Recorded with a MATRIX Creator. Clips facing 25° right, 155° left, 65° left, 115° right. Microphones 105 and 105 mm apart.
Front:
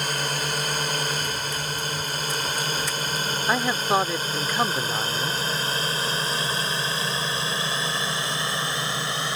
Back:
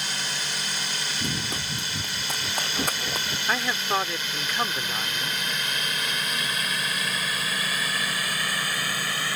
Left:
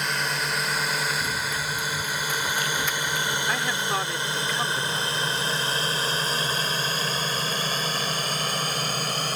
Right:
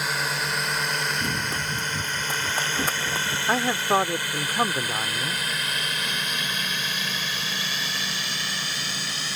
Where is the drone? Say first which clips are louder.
Front 6 dB, even; 25° right; by 9.4 s 40° left.